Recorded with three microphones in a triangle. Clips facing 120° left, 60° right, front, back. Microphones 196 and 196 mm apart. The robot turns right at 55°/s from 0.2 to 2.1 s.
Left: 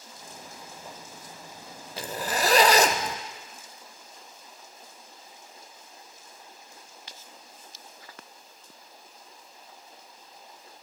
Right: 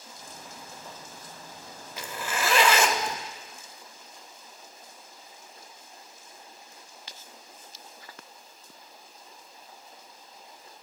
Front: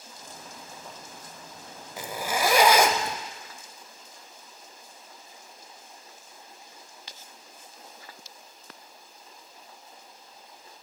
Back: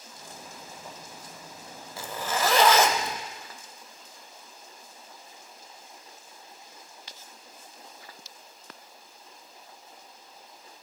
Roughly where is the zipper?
Ahead left.